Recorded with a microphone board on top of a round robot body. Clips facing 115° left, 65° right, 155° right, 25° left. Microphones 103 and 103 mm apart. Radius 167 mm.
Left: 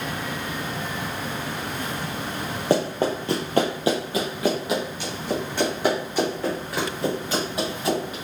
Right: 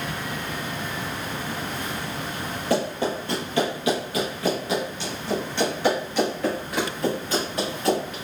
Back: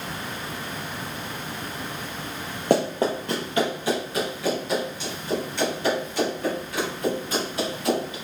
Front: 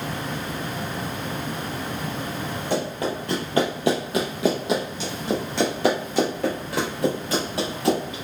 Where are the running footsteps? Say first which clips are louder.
Left 2 dB, back 5 dB; 175° left, 0.8 m; by 8.1 s 30° left, 3.5 m.